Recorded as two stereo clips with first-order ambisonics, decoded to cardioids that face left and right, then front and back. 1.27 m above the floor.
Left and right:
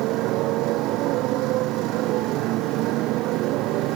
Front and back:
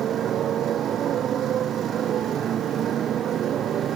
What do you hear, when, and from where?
0.0 s a motorcycle: 125° right